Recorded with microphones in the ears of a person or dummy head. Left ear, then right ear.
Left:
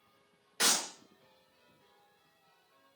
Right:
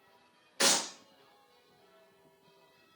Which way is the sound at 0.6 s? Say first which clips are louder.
Right 2 dB; centre (ahead or behind).